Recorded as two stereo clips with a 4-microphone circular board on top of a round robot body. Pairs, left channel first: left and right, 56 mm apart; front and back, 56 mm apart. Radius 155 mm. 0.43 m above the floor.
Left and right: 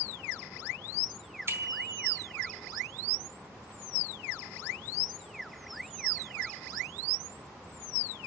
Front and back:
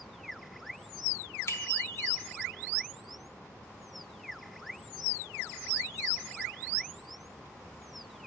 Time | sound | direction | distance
1.5 | a bicycle bell | 45° right | 4 m